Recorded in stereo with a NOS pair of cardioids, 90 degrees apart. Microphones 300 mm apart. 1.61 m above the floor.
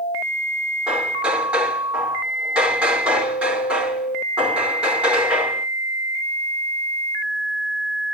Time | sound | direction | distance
0.9 | hammering | 5° right | 5 m